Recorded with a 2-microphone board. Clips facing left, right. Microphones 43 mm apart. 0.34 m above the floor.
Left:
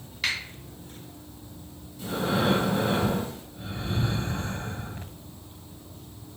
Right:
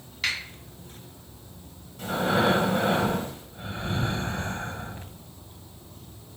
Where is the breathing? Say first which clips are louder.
Right 3 dB; 55° right (ahead or behind), 0.9 m.